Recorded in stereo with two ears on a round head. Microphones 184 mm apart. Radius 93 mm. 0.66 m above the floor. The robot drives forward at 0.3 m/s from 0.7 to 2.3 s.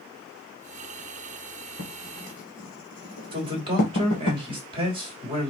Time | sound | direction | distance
1.8 | writing | 45° left (ahead or behind) | 2.5 m
3.3 | a man speaking | 25° right (ahead or behind) | 2.5 m